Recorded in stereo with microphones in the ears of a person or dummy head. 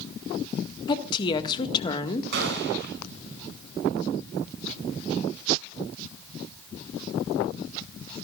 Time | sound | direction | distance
0.9 | a woman speaking | 30° left (ahead or behind) | 1.7 m
2.3 | a gunshot | 60° right (ahead or behind) | 7 m